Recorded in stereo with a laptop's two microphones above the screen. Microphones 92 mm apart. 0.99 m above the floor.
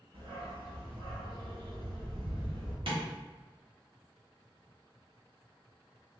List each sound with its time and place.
0.1 s a dog barking: 80° right, 1.7 m
2.9 s tapping: 70° right (ahead or behind), 1.3 m